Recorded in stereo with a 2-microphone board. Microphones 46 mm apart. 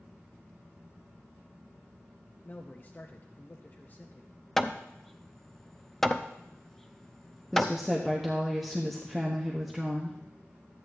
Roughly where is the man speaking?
Left.